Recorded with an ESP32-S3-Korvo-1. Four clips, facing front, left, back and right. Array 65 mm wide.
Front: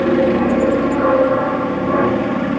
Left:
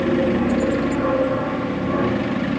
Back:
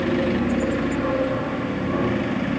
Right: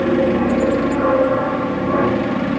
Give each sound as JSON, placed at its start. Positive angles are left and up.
{"t": 0.0, "sound": "an aircraft", "azimuth_deg": -30}